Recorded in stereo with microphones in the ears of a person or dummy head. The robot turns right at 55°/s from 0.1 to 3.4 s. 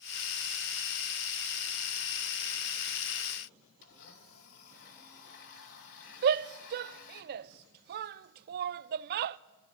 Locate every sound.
3.8 s a blender: 65° left (ahead or behind), 3.5 m
6.2 s a shout: 55° right (ahead or behind), 0.7 m